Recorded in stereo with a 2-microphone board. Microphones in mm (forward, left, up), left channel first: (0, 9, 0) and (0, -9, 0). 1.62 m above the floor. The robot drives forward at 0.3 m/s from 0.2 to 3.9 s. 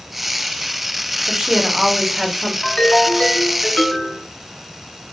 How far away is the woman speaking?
About 1.8 m.